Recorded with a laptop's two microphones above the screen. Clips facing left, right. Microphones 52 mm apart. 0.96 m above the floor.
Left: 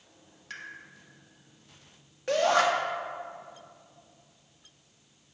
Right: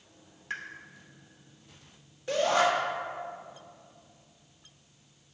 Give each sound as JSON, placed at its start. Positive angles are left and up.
{"t": 0.5, "sound": "a pop", "side_deg": -25, "distance_m": 1.3}
{"t": 2.3, "sound": "a shout", "side_deg": 60, "distance_m": 1.5}